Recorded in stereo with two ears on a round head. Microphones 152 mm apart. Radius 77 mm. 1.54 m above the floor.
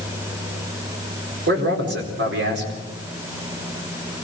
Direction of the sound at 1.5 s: 70° right (ahead or behind).